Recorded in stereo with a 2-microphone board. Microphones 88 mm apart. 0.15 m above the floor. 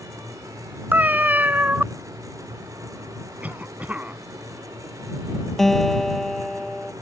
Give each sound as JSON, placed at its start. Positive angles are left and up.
{"t": 0.9, "sound": "a cat meowing", "side_deg": -20}
{"t": 3.4, "sound": "a cough", "side_deg": -15}
{"t": 5.6, "sound": "a guitar", "side_deg": 5}